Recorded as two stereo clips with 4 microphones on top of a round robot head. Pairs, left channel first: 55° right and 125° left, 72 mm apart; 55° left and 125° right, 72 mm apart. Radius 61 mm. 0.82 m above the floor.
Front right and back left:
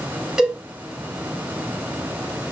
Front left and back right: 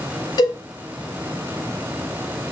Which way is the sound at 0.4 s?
40° left.